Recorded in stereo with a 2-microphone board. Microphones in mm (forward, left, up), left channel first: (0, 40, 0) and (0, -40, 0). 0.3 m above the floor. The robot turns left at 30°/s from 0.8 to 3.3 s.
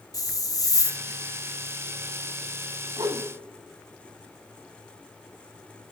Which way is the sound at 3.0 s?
60° right (ahead or behind).